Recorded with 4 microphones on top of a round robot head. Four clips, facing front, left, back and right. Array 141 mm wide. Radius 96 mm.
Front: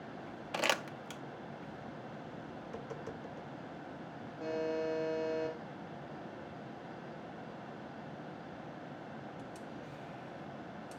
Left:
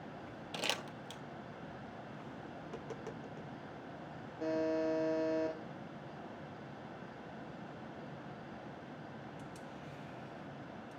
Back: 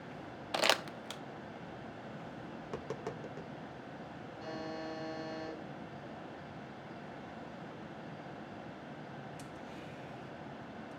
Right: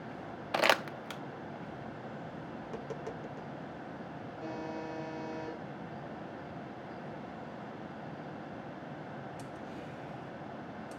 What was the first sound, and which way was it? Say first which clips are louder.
Crumpling: right 13 dB, back 2 dB; 105° right.